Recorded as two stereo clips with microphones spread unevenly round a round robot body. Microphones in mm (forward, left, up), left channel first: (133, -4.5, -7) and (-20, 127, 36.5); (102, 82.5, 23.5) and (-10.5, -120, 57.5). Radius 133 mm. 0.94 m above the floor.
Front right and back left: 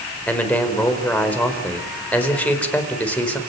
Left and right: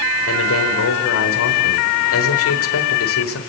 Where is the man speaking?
40° left, 4.5 m.